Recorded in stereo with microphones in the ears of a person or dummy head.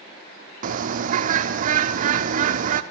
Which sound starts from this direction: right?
A bird, at 0.6 s.